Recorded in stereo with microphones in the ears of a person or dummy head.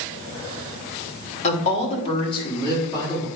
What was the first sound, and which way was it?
A woman speaking, 35° left (ahead or behind).